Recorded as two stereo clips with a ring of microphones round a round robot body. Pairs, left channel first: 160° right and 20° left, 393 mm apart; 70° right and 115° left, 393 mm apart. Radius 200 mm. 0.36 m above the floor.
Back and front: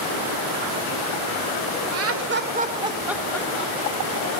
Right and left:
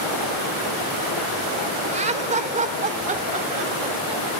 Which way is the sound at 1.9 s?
45° left.